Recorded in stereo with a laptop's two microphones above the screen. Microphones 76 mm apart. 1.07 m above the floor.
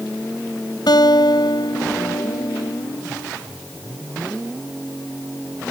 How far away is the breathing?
No breathing in this recording.